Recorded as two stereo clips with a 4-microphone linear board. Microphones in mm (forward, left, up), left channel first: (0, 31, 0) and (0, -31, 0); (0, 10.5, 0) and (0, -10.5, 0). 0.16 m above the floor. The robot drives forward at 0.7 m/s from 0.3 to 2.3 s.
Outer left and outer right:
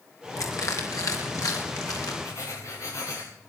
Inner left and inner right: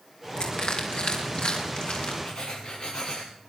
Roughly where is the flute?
I don't hear a flute.